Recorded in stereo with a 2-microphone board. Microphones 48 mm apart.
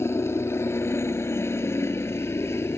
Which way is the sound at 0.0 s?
60° left (ahead or behind).